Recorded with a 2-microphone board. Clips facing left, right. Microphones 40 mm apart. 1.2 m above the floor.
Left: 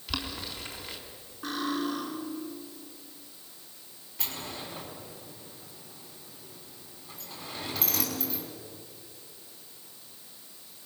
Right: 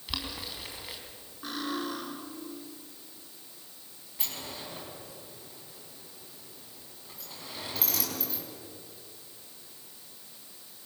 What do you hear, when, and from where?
0.1 s boiling: 5° right (ahead or behind), 3.5 m
1.4 s cutlery clinking: 5° right (ahead or behind), 9.5 m
4.2 s a sliding door: centre (ahead or behind), 6 m